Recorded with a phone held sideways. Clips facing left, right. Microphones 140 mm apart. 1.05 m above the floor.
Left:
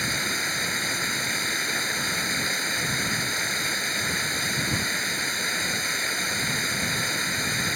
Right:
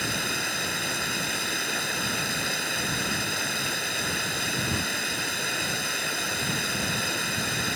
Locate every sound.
0.0 s running water: 5° right (ahead or behind)